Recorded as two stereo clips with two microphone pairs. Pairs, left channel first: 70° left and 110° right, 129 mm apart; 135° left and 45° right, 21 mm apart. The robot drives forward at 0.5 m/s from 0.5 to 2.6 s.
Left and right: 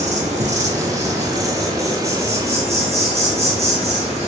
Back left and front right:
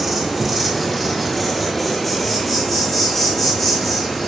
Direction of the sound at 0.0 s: 130° right.